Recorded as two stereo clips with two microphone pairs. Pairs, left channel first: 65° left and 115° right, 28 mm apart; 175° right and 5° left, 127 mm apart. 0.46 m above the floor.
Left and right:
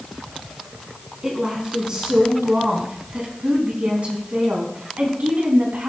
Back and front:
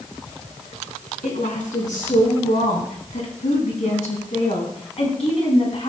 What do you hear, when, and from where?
1.2 s a woman speaking: straight behind, 5 m; by 5.9 s 140° right, 4 m